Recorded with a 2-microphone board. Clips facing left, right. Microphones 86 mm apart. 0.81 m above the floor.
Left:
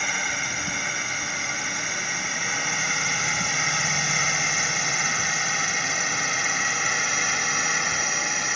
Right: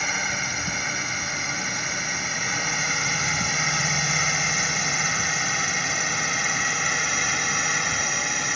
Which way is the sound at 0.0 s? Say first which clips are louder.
Right 1 dB; centre (ahead or behind).